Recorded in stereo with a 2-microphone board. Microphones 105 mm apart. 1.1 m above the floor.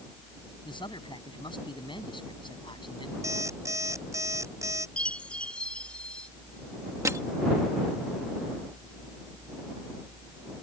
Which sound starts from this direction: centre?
A chime, at 5.0 s.